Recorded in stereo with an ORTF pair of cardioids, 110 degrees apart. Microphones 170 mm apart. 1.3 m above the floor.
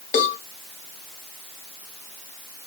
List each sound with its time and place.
0.1 s a cowbell: 60° left, 1.1 m